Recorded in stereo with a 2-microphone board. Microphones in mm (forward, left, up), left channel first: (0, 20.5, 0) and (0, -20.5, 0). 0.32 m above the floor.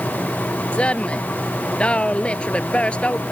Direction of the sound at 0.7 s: 25° left (ahead or behind).